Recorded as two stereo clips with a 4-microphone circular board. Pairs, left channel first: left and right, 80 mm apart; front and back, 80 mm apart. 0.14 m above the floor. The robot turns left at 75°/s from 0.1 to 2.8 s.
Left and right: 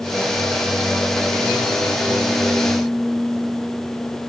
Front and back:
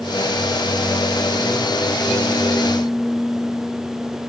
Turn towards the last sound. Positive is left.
No sound to turn to.